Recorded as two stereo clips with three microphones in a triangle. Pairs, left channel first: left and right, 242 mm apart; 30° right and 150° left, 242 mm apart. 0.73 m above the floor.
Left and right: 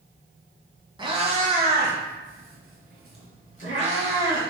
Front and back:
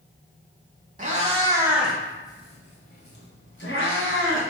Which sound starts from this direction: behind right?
A cat meowing, at 1.0 s.